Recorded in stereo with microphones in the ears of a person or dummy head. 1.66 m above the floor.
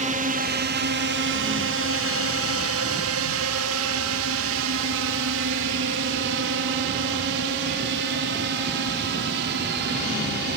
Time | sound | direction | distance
0.0 | a drone | 40° right (ahead or behind) | ?